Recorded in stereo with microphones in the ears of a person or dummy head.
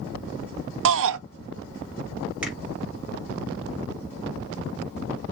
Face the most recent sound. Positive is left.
turn(degrees=-5)  # may be behind; listen again after turning